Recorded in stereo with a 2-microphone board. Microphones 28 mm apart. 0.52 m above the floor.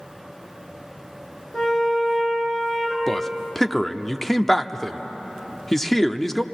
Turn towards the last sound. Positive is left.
turn(degrees=10)  # may be behind; listen again after turning